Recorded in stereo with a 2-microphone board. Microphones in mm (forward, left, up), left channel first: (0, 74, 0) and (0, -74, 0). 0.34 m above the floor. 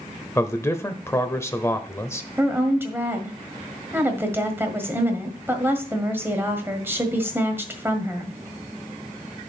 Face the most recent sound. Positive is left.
turn(degrees=-15)  # may be behind; listen again after turning